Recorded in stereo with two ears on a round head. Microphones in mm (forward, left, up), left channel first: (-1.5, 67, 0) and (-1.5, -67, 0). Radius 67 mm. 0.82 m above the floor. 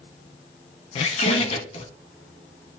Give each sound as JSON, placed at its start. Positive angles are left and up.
{"t": 0.9, "sound": "a squeak", "side_deg": 40, "distance_m": 1.1}